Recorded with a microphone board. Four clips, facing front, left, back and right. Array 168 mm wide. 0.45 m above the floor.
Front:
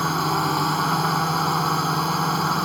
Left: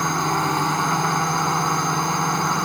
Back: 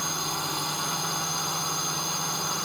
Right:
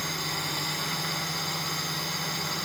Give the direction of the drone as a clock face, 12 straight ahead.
10 o'clock.